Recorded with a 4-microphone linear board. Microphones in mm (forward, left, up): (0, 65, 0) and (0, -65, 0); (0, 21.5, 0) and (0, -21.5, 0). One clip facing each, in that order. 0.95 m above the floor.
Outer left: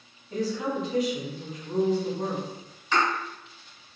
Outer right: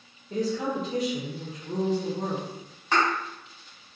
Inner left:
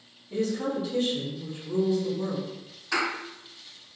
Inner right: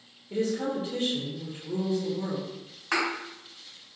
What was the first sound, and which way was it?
A woman speaking, 45° right (ahead or behind).